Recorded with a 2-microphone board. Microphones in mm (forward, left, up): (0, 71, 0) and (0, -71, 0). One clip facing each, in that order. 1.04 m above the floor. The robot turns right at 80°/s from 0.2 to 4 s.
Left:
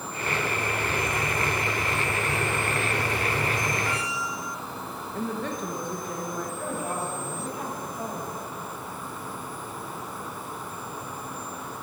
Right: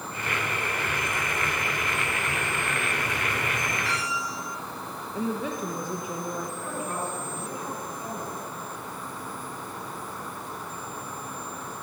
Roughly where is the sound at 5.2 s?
Centre.